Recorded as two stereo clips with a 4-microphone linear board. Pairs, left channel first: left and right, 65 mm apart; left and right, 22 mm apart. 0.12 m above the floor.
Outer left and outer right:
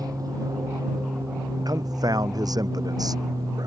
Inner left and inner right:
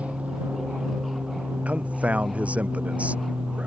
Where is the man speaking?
75° right (ahead or behind).